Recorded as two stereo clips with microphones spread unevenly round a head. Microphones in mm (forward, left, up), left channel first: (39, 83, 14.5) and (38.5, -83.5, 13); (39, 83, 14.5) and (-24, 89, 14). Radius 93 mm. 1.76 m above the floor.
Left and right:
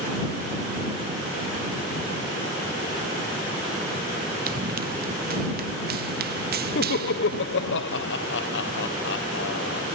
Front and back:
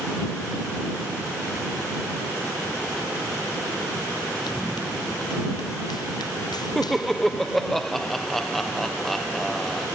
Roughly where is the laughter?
Left.